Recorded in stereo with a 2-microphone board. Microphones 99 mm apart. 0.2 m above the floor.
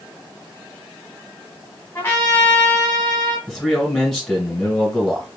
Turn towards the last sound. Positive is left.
turn(degrees=0)  # may be behind; listen again after turning